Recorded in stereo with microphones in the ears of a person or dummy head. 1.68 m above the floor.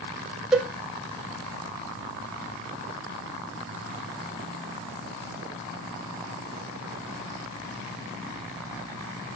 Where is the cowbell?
5° right (ahead or behind), 1.9 m.